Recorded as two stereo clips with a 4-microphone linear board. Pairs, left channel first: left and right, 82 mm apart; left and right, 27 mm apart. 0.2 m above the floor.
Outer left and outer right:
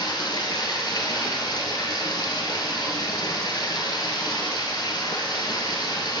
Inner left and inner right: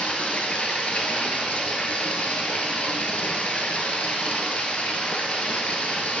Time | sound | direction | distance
0.0 | running water | 60° left (ahead or behind) | 0.8 m